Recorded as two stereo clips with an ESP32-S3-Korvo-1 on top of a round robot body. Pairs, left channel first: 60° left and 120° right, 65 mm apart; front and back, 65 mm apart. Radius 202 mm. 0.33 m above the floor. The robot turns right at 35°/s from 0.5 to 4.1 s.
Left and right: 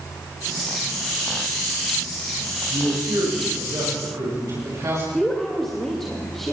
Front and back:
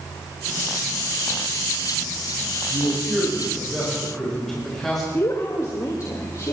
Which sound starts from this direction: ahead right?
A woman speaking, at 5.1 s.